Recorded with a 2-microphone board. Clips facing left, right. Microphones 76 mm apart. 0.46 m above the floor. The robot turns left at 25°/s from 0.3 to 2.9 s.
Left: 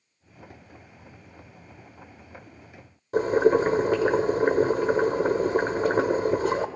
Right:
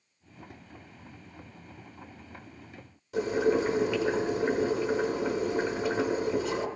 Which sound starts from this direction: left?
Boiling, at 3.1 s.